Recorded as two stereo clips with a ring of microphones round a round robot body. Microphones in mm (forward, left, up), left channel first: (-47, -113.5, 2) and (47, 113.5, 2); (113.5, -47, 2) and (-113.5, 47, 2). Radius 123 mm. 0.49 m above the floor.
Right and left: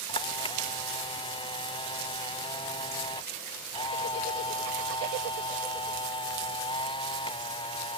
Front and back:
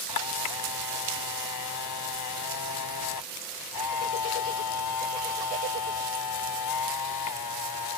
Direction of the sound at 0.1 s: 40° right.